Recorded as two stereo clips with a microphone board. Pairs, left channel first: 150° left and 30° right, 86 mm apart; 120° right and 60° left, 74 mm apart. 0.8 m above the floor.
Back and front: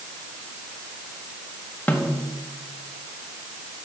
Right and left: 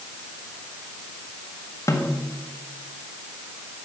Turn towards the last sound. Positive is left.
turn(degrees=-145)